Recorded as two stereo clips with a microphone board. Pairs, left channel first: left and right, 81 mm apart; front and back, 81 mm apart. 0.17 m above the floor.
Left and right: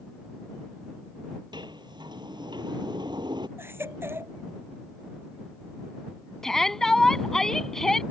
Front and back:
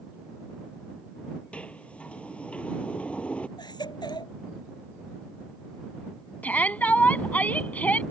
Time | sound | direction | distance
1.5 | a sliding door | 75° right | ?
3.6 | a baby crying | 30° right | ?
6.4 | a shout | 20° left | ?